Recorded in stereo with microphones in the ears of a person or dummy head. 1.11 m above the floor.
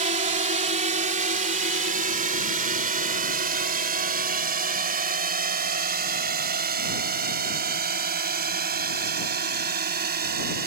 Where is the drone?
30° right (ahead or behind); by 10.7 s 45° right (ahead or behind).